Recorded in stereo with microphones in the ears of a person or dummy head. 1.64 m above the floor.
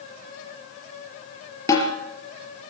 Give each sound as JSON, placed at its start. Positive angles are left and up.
{"t": 1.7, "sound": "a snare drum", "side_deg": 25, "distance_m": 4.5}